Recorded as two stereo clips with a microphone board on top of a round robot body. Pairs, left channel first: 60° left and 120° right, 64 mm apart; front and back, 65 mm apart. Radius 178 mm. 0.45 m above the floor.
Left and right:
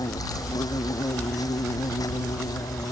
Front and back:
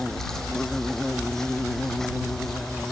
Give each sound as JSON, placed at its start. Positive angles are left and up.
{"t": 0.0, "sound": "an insect", "azimuth_deg": 85}